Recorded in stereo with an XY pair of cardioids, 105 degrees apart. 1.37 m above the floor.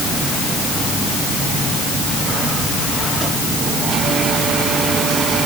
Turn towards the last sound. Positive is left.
No sound to turn to.